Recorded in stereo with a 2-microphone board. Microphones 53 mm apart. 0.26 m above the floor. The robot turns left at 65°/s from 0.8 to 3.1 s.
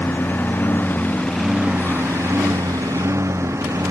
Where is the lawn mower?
35° left; by 3.9 s 115° right.